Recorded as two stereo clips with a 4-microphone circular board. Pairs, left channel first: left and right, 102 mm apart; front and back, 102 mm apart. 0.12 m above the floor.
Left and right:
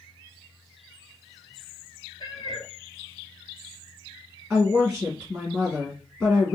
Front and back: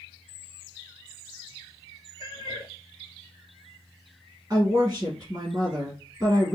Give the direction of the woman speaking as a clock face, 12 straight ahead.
5 o'clock.